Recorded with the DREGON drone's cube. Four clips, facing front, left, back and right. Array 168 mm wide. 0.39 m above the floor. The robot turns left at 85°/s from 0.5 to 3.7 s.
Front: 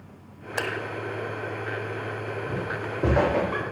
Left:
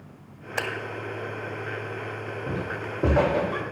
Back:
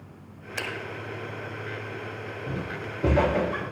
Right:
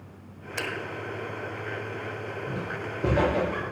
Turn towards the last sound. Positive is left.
turn(degrees=0)